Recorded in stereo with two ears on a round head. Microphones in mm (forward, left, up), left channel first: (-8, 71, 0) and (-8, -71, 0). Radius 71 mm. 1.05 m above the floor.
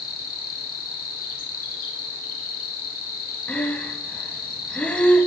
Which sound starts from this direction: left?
An insect, at 0.0 s.